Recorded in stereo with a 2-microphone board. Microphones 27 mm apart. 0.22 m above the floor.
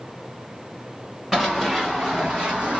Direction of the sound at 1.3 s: 15° right (ahead or behind).